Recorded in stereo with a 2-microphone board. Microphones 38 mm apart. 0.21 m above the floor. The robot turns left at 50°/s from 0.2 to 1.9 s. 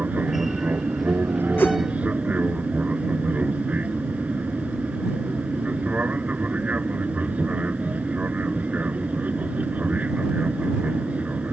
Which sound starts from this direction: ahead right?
An aircraft, at 0.0 s.